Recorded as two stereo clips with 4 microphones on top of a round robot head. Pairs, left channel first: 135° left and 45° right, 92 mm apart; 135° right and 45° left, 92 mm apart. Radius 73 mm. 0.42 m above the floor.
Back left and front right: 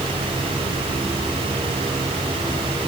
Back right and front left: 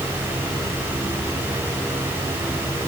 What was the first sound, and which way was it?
Only background noise.